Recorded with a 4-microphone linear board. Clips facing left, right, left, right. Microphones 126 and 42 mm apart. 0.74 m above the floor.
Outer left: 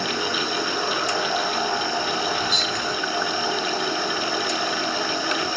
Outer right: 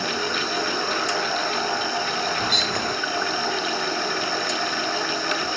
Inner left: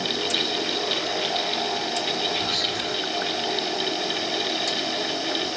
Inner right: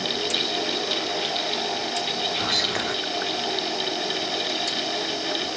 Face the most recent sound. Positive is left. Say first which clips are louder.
# even, inner right 1 dB
turn(degrees=-60)  # may be behind; listen again after turning